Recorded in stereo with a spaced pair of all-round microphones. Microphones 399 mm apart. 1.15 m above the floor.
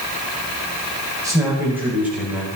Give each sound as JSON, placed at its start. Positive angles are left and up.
{"t": 1.2, "sound": "a man speaking", "side_deg": -10, "distance_m": 5.5}